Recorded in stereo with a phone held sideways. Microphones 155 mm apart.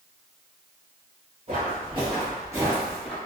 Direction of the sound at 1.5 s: 40° right (ahead or behind).